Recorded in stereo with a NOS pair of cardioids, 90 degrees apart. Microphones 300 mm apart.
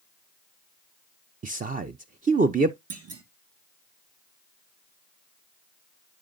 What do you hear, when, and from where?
1.4 s a man speaking: 25° right, 0.7 m
2.9 s a clunk: 50° right, 2.0 m